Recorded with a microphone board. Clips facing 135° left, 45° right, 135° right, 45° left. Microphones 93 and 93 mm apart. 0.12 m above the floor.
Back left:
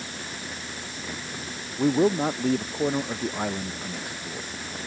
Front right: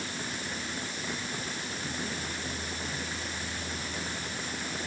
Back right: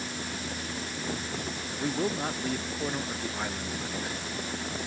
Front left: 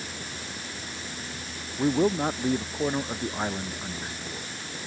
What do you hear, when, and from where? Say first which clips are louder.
1.8 s a man speaking: back left 21 dB, front left 7 dB; 115° left